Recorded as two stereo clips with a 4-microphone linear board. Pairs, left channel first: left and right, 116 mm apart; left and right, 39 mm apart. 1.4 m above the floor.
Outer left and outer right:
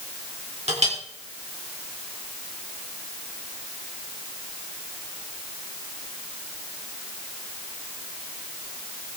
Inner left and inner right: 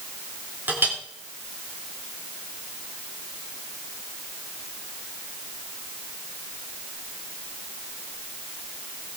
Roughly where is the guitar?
No guitar in this recording.